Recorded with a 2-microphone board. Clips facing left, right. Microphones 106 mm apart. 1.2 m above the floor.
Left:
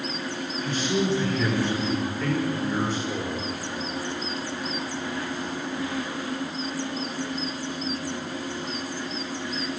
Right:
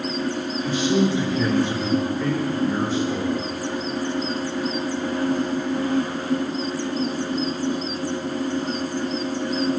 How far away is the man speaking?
About 5 m.